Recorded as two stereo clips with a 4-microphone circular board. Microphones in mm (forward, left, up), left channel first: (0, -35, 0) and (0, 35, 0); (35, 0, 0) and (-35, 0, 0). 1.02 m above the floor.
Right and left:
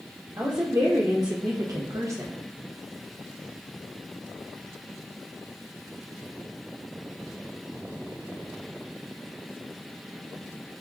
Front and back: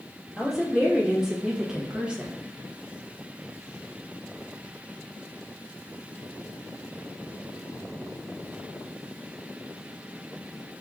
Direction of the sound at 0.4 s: 90° left.